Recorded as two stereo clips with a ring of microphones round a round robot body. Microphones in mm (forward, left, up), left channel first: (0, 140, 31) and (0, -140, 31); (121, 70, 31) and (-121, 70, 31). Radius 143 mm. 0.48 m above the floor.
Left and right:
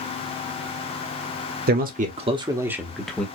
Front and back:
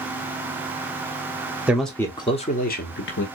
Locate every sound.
1.7 s a man speaking: 100° right, 1.1 m; by 3.3 s 5° left, 1.3 m